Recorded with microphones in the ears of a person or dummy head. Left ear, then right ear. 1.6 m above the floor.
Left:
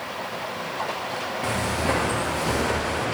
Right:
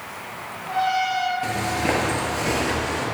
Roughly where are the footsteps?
Right.